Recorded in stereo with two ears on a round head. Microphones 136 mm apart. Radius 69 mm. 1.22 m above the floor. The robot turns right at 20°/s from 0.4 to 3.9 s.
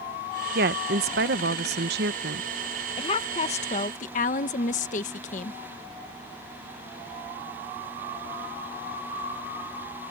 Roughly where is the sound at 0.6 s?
Right.